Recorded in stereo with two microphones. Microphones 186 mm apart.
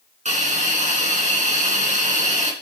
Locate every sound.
0.2 s a hiss: 40° right (ahead or behind), 3 m